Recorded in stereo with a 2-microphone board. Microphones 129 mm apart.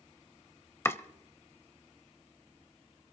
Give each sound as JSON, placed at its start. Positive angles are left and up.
{"t": 0.8, "sound": "chopping", "side_deg": 20, "distance_m": 1.0}